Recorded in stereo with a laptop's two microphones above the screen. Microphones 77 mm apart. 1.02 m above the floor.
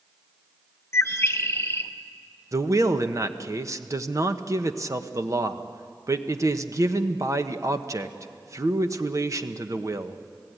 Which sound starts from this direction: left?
A bird, at 0.9 s.